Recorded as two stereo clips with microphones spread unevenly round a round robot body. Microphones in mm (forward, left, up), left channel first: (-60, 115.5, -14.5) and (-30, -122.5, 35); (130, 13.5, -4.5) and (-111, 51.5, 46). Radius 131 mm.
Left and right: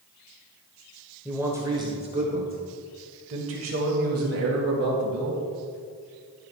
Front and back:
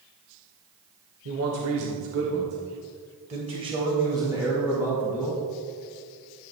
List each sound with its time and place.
1.2 s a man speaking: 175° right, 2 m; by 5.4 s 100° right, 4 m